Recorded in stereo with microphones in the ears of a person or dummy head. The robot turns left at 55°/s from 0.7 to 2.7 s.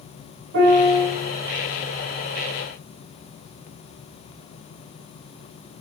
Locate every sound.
0.5 s a piano: 55° right (ahead or behind), 1.1 m; by 1.1 s 40° right (ahead or behind), 1.1 m